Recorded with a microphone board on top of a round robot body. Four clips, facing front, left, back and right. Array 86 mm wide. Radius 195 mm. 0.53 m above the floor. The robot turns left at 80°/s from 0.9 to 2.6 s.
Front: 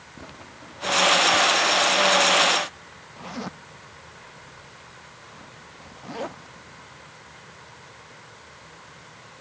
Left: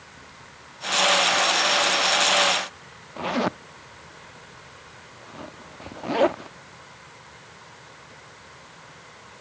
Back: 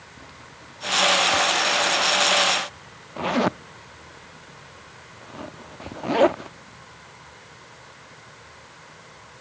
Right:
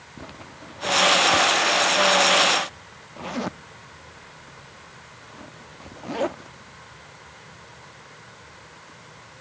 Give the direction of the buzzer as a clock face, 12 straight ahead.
I don't hear a buzzer.